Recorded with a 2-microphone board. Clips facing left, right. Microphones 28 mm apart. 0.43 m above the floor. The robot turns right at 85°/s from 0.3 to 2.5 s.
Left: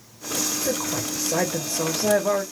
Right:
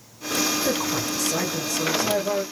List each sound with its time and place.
0.7 s a woman speaking: 20° right, 1.9 m; by 2.4 s 135° left, 1.9 m